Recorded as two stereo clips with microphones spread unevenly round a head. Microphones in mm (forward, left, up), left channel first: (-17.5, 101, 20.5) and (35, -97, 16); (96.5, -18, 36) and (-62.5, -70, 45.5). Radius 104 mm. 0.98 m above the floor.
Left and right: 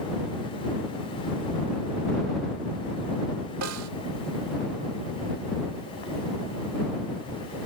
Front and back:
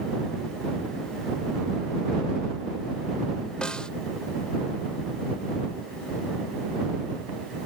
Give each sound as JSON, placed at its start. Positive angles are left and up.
{"t": 3.6, "sound": "a snare drum", "azimuth_deg": -70}